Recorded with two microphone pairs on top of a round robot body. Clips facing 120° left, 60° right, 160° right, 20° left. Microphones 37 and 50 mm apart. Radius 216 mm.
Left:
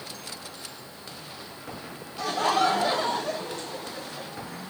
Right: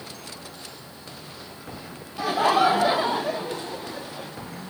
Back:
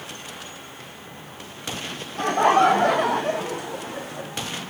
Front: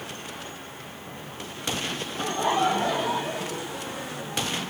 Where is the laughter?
130° right, 1.4 m.